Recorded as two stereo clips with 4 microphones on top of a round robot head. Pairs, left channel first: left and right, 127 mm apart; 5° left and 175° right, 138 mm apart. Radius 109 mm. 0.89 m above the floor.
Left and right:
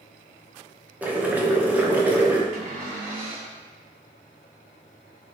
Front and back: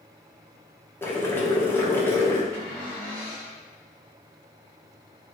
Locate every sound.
1.0 s boiling: 35° right, 0.8 m
2.5 s a cupboard door: 70° right, 1.5 m